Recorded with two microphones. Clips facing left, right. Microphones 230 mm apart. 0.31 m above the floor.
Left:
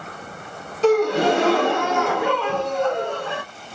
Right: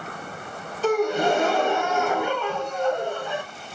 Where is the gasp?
75° left (ahead or behind), 0.7 m.